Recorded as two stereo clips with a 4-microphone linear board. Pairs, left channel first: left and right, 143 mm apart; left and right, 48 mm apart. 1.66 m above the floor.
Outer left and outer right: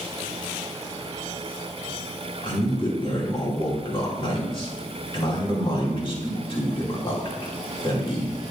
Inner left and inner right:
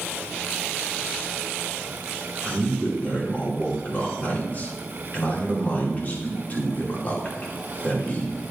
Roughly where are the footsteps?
I don't hear footsteps.